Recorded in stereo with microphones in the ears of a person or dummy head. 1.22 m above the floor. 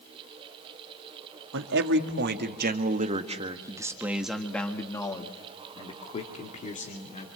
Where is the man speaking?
70° right (ahead or behind), 1.9 m; by 7.3 s 40° left (ahead or behind), 2.5 m.